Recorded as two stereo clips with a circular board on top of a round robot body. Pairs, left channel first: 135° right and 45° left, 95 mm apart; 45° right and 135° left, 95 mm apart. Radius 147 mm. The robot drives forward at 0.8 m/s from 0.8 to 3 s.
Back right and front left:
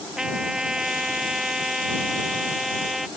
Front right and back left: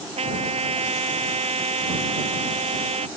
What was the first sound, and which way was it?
A trumpet, 130° left.